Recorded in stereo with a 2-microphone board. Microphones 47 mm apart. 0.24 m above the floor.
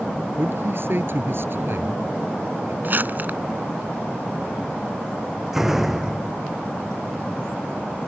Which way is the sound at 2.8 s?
45° right (ahead or behind).